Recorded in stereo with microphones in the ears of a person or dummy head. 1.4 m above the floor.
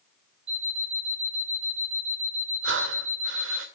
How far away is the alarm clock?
About 2.5 m.